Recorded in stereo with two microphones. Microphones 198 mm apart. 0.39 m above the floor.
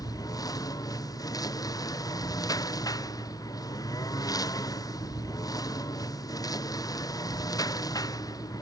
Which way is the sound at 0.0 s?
15° left (ahead or behind).